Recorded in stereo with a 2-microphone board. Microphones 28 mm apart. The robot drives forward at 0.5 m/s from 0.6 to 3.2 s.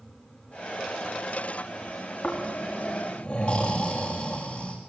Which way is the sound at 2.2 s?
50° left (ahead or behind).